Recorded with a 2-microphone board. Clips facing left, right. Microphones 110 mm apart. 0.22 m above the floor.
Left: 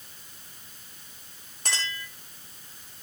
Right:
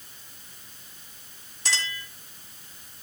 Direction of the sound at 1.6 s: 45° left (ahead or behind).